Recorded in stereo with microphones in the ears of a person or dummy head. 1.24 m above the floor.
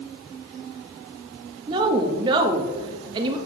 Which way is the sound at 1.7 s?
25° right (ahead or behind).